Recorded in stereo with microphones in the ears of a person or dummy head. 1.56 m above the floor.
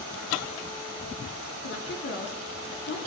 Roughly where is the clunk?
No clunk in this recording.